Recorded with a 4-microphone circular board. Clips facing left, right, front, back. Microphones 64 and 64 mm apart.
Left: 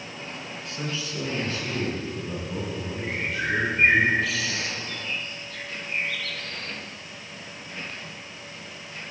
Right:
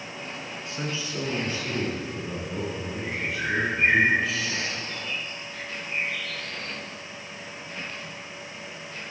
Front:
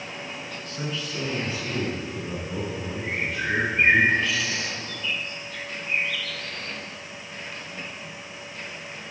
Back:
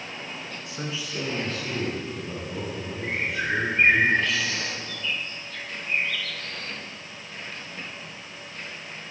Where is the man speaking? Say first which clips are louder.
Even, front 2 dB; 130° right, 1.2 m; by 4.0 s straight ahead, 2 m.